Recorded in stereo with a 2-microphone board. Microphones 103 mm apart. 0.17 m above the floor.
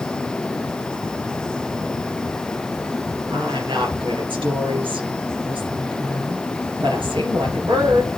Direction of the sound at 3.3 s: 55° right (ahead or behind).